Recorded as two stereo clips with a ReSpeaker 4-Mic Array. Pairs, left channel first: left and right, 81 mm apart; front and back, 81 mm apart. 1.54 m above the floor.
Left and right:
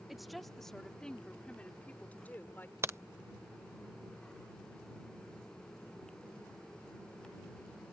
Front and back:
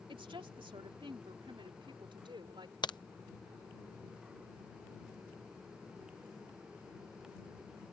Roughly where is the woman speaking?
Behind.